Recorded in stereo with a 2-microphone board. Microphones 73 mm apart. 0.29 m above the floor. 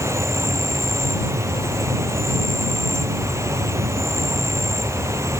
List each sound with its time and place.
0.0 s an insect: 40° right (ahead or behind)